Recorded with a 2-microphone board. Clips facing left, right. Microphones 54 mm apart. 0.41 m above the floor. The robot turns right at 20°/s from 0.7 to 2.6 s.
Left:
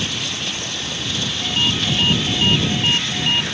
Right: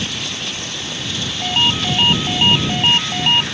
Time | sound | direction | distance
1.4 | a ringtone | 75° right (ahead or behind) | ?